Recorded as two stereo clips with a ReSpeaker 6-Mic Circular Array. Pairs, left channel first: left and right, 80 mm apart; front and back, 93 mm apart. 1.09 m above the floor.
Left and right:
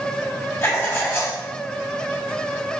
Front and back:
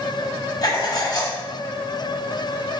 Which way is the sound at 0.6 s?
30° left.